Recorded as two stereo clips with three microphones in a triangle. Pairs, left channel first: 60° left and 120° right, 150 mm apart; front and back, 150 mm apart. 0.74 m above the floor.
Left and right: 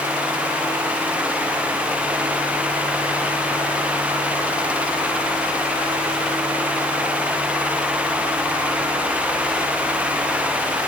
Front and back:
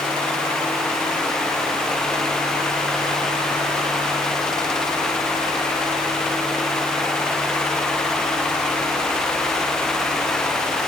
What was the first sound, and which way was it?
Only background noise.